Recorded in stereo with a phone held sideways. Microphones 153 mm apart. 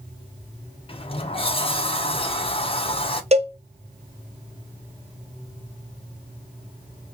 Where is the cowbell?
45° right (ahead or behind), 0.6 m.